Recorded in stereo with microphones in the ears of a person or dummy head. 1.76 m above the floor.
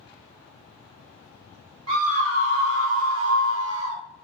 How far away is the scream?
About 1.8 m.